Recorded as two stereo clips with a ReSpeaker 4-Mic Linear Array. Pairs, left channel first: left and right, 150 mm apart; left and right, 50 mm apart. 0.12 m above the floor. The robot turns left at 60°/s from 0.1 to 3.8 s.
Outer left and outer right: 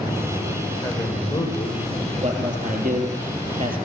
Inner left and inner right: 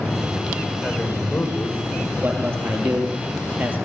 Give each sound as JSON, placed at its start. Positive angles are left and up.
{"t": 0.8, "sound": "a man speaking", "azimuth_deg": 160, "distance_m": 6.5}
{"t": 2.2, "sound": "a man speaking", "side_deg": -40, "distance_m": 3.5}